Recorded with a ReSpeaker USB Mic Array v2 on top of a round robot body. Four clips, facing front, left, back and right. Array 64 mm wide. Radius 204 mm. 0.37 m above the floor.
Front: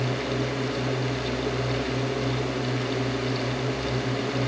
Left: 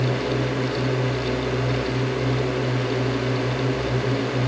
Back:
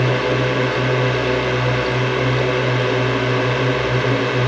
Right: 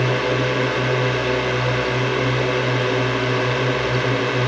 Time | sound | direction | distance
0.0 | a drone | 145° right | ?